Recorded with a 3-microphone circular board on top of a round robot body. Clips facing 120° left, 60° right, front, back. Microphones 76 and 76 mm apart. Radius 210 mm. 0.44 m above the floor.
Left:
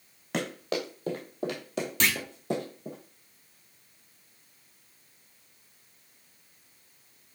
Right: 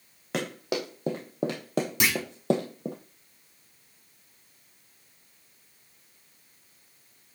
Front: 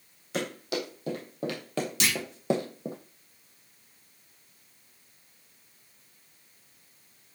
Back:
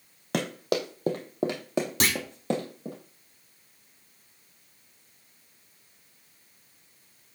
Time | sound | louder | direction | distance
0.3 | running footsteps | right 1 dB, back 4 dB | 150° right | 1.4 m
2.0 | a clunk | left 1 dB, even | 135° right | 1.1 m